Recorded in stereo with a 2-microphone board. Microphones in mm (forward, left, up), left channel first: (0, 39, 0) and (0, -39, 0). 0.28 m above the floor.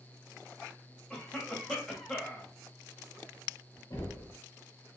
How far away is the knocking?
About 1.4 m.